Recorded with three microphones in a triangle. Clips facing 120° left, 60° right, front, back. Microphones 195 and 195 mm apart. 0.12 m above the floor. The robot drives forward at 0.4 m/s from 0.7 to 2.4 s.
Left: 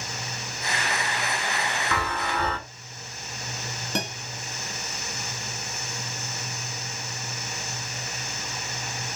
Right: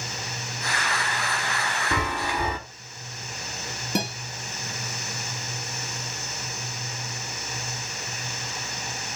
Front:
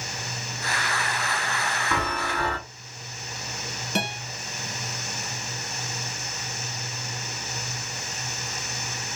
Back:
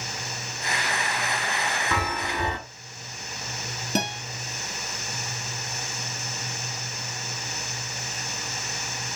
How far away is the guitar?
About 2 m.